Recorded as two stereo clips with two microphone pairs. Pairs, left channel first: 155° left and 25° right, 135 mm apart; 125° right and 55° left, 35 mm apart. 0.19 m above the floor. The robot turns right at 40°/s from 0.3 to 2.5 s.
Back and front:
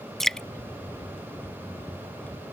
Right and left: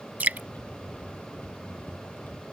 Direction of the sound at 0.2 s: 60° left.